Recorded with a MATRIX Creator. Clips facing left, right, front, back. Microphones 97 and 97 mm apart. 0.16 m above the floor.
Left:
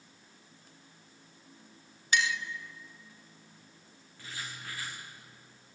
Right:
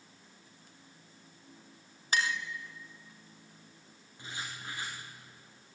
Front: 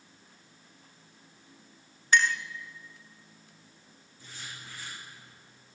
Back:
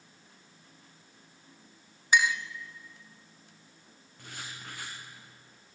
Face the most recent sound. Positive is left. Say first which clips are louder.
# right 1 dB, back 2 dB
turn(degrees=-155)